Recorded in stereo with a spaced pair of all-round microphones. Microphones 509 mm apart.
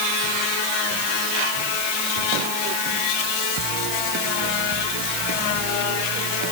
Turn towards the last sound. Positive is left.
No sound to turn to.